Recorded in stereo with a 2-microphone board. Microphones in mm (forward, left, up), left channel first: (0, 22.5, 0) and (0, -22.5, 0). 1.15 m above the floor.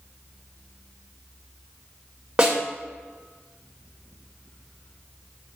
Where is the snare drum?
20° right (ahead or behind), 1.8 m.